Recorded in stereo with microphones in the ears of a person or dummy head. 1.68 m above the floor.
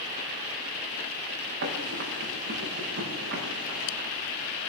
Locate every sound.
1.6 s running footsteps: 60° right (ahead or behind), 6.5 m